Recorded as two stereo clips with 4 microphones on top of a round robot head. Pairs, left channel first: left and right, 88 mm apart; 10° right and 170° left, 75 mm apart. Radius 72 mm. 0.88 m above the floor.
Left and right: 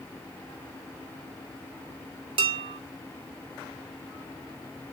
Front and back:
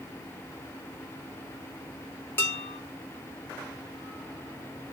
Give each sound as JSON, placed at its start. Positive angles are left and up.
{"t": 2.4, "sound": "dishes clattering", "azimuth_deg": -75, "distance_m": 1.1}